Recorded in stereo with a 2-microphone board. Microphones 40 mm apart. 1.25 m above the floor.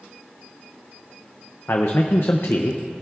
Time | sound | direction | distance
1.7 | a man speaking | 80° left | 0.6 m